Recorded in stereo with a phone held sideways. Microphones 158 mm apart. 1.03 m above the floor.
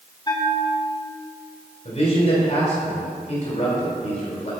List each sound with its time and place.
0.3 s a bell: 25° left (ahead or behind), 1.2 m
1.9 s a man speaking: 45° left (ahead or behind), 3 m